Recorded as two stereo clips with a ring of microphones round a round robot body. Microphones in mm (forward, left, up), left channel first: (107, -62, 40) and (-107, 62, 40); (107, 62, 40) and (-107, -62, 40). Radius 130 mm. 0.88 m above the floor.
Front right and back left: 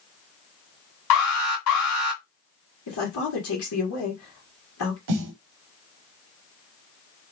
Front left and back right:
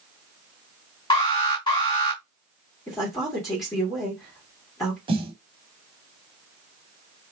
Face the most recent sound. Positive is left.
turn(degrees=140)